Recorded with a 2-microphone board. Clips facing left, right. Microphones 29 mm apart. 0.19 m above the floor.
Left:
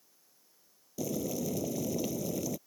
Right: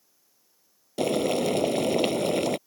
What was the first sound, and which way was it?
Boiling, 65° right (ahead or behind).